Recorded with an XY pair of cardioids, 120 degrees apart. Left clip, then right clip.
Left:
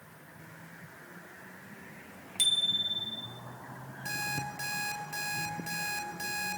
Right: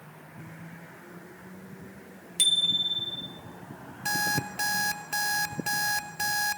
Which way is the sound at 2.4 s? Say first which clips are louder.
Right 4 dB; 30° right.